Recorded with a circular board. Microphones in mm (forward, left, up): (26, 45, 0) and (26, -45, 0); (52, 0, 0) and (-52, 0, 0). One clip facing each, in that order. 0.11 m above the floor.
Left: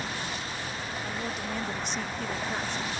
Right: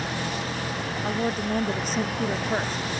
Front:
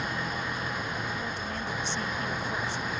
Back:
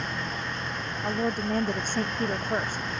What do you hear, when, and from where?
0.0 s an engine running: 85° right
1.0 s a woman speaking: 135° right